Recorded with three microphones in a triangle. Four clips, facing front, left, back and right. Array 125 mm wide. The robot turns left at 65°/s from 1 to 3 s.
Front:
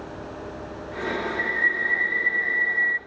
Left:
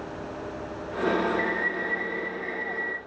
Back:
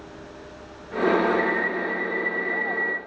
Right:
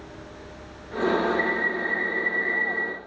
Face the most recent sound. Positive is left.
turn(degrees=90)